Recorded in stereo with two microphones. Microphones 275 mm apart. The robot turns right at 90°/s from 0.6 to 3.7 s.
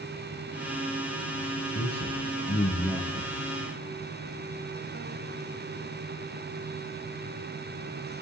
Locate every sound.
1.7 s a man speaking: 80° left, 4.5 m; by 3.4 s 55° right (ahead or behind), 4.5 m